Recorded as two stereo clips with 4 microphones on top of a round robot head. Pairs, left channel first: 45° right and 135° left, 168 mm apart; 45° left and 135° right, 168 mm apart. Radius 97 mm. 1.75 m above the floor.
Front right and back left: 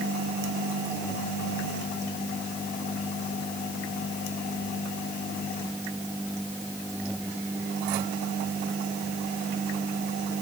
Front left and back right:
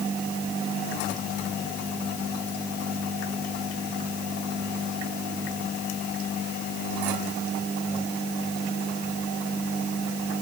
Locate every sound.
Only background noise.